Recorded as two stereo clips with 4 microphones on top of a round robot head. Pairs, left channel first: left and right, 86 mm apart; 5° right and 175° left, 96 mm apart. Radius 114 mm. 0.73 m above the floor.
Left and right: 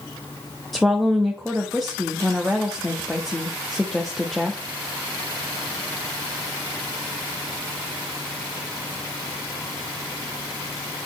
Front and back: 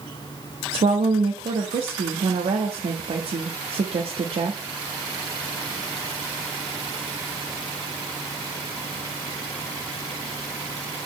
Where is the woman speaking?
175° left, 1.1 m.